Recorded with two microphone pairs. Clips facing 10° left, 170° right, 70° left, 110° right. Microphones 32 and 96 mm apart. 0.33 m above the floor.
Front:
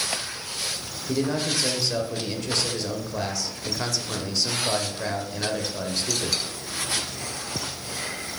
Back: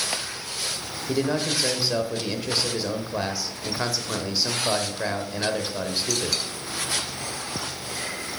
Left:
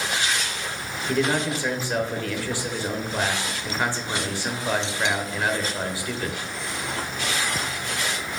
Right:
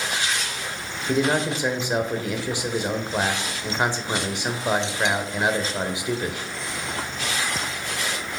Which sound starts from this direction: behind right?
A man speaking, at 1.1 s.